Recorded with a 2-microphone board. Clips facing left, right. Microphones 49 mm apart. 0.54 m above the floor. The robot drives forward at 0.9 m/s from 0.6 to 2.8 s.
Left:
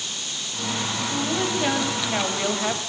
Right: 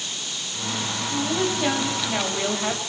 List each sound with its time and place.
1.0 s a woman speaking: 5° left (ahead or behind), 4.5 m